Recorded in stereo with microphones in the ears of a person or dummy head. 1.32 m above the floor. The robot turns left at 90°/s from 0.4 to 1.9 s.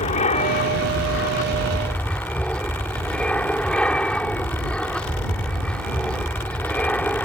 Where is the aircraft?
140° left; by 7.2 s 5° left.